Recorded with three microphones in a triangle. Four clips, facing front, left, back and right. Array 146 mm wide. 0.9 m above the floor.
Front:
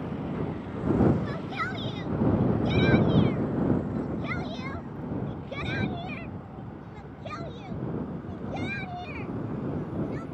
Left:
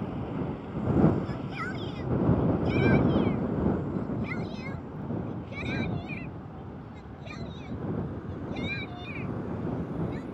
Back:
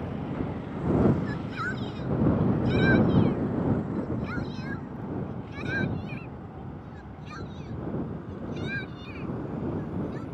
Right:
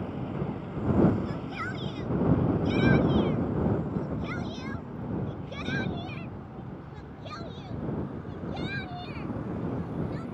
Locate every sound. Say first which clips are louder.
1.2 s a shout: even, even; straight ahead; by 10.2 s 20° right